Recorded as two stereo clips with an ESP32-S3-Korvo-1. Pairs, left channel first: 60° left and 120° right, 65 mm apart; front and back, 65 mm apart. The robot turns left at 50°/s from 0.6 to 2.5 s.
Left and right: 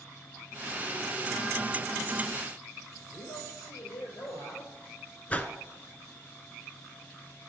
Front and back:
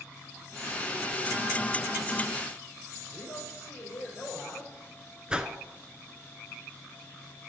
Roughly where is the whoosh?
Behind left.